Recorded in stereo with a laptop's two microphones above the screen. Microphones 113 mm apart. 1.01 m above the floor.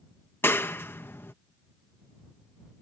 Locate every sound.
0.4 s a clap: 20° left (ahead or behind)